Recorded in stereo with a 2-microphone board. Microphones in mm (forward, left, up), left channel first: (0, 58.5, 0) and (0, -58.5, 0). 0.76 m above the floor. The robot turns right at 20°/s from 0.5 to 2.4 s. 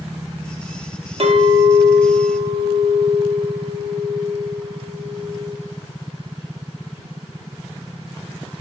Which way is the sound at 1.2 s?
65° right (ahead or behind).